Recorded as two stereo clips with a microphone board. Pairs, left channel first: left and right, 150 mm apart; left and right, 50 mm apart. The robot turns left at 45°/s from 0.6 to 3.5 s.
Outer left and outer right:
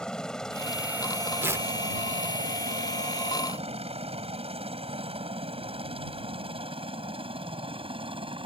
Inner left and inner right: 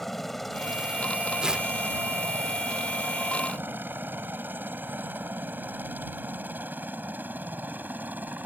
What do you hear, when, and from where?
0.0 s a helicopter: 5° left (ahead or behind); by 8.5 s 35° right (ahead or behind)
1.4 s tearing paper: 15° right (ahead or behind); by 1.7 s 25° right (ahead or behind)